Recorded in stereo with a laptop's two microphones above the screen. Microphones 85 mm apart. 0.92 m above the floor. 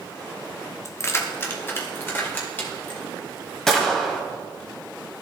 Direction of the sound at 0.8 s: 35° left (ahead or behind).